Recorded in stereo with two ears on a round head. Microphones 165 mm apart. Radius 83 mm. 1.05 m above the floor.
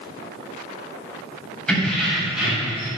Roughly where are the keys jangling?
Centre.